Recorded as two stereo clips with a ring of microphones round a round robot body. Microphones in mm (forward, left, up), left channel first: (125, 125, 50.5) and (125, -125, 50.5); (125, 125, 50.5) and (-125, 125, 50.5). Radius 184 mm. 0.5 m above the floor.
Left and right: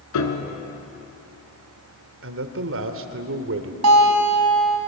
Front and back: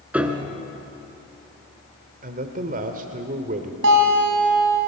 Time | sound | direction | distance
0.1 | a piano | 95° left | 2.5 m
2.2 | a man speaking | 120° right | 1.5 m
3.8 | a guitar | 125° right | 3.5 m